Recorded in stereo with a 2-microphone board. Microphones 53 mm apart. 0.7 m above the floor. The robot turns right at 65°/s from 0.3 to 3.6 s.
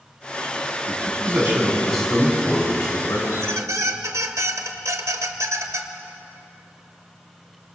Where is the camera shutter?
No camera shutter in this recording.